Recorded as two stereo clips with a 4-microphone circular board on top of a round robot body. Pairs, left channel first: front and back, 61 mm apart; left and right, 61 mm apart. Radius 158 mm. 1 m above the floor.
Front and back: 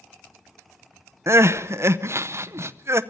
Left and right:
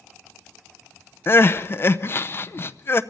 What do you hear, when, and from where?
1.3 s crying: 140° left, 0.8 m